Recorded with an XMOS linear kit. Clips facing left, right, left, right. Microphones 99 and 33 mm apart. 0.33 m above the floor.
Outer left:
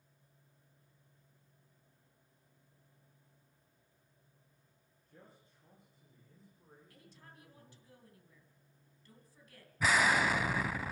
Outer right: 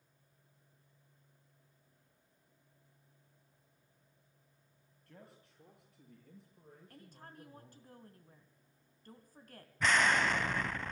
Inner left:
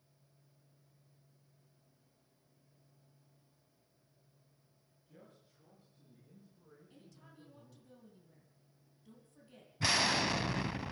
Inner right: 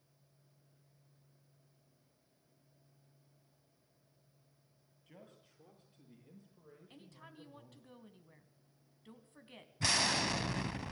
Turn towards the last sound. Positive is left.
turn(degrees=5)  # may be behind; listen again after turning